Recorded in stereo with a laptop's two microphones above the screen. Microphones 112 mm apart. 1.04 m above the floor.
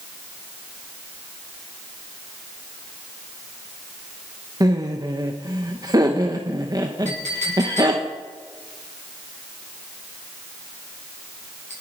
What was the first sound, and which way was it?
Laughter, 35° right (ahead or behind).